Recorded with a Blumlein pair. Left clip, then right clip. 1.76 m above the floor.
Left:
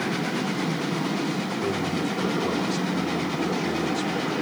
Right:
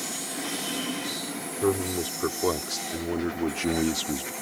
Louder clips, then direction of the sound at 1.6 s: Right 3 dB; 15° right.